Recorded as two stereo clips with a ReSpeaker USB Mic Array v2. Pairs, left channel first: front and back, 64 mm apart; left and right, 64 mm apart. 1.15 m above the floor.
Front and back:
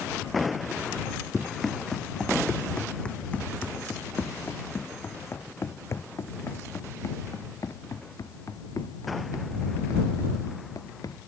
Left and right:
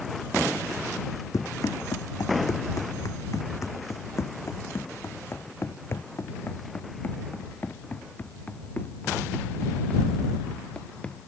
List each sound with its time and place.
1.3 s running footsteps: 90° left; by 11.3 s 15° left